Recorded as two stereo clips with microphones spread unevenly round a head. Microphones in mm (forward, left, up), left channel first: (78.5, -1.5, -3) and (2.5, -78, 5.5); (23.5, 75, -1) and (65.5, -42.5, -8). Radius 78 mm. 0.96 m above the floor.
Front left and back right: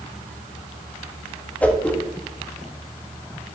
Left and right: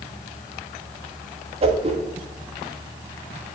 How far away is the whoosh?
About 1.4 m.